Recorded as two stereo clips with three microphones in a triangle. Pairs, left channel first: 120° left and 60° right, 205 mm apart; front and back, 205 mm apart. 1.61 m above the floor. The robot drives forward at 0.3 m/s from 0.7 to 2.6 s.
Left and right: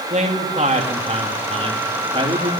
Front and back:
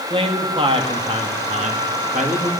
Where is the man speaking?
115° right, 2 m; by 2.5 s 130° right, 2.5 m.